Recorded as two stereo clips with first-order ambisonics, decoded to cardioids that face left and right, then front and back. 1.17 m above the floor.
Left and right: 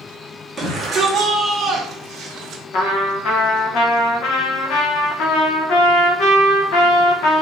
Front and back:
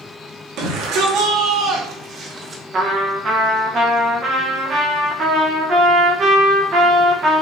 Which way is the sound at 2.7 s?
120° left.